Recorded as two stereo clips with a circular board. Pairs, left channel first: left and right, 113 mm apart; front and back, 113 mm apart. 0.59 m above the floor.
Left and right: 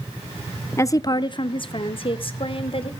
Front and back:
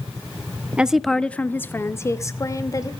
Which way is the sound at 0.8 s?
115° left.